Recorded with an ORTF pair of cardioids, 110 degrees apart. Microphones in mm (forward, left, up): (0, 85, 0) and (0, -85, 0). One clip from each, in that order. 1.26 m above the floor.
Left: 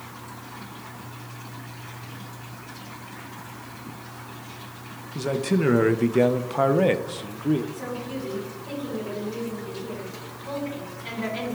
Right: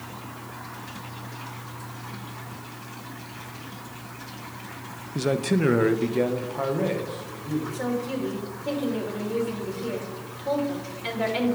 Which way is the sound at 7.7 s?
60° right.